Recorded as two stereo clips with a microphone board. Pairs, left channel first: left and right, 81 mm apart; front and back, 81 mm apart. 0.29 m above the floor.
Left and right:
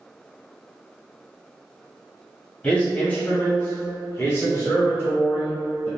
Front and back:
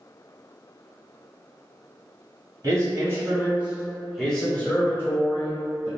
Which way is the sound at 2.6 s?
160° left.